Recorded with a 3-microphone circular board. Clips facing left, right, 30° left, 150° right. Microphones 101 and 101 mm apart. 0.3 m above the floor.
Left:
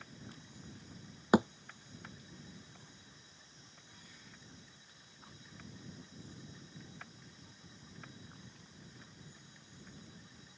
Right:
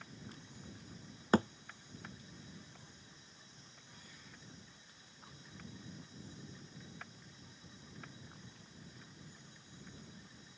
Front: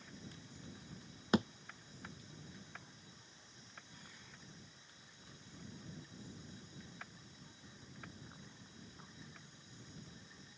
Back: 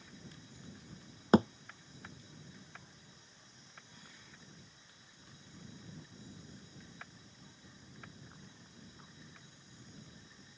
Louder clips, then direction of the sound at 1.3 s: Left 3 dB, back 8 dB; 165° left.